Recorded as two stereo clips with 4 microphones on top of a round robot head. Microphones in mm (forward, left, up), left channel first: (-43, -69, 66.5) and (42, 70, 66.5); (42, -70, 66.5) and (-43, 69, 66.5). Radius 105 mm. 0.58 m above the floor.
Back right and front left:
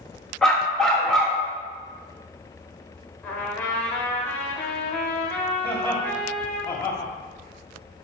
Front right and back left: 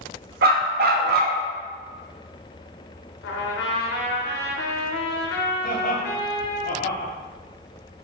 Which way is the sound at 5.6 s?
50° right.